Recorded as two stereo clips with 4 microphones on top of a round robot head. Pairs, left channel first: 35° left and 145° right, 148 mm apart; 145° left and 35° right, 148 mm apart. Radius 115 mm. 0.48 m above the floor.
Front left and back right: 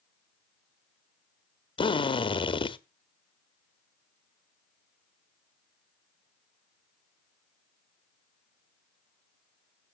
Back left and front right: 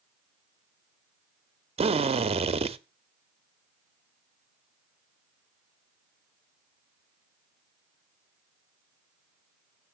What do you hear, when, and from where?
1.8 s a drill: 5° right, 1.0 m